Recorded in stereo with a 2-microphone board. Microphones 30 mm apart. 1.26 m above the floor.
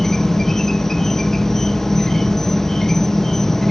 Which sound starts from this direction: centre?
An insect, at 0.0 s.